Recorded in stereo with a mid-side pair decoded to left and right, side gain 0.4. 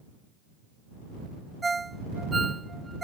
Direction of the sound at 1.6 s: 30° right.